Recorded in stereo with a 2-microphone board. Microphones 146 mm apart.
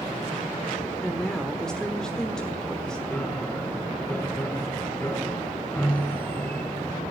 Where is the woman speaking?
5° left (ahead or behind), 1.1 m.